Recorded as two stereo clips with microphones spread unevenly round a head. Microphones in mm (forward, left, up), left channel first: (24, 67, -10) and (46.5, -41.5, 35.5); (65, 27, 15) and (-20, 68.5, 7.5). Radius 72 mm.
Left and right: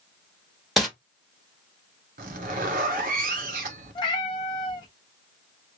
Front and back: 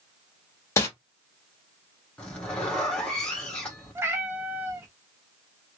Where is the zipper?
110° right, 0.8 m.